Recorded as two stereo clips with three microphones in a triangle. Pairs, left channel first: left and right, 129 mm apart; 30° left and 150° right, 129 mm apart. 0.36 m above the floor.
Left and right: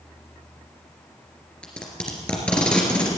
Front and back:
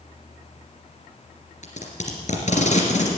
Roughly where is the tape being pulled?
Ahead.